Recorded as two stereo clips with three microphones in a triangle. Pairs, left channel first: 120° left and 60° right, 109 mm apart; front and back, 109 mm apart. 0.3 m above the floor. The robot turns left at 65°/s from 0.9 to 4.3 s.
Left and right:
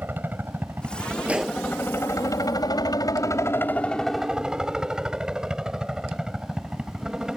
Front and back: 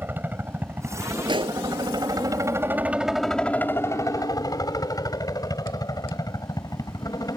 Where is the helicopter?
120° right; by 7.4 s 20° left.